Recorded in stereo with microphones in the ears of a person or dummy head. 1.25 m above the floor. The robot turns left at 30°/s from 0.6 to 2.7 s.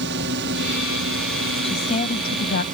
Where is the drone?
65° right; by 2.7 s 130° right.